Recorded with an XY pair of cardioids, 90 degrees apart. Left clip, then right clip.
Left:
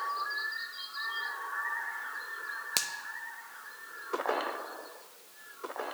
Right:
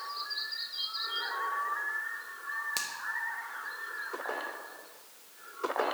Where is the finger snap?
50° left, 0.6 m.